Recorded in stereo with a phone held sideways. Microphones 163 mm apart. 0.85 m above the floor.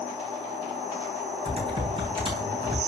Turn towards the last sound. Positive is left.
turn(degrees=-35)  # may be behind; listen again after turning